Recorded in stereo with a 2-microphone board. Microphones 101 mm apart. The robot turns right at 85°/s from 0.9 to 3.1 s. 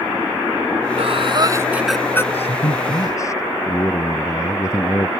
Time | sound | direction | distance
1.0 | breathing | 80° right | ?
2.3 | a man speaking | 85° left | ?